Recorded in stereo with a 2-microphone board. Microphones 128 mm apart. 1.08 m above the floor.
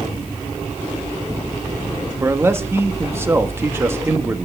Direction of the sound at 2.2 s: 20° right (ahead or behind).